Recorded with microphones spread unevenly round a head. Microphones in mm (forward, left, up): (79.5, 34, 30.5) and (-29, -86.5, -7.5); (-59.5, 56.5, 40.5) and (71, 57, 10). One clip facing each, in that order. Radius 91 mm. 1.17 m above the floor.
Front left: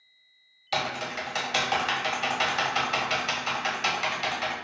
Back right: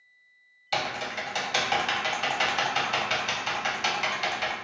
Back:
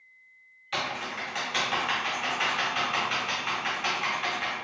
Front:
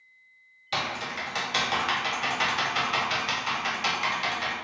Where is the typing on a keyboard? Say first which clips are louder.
Even, front 1 dB; 45° right, 0.7 m.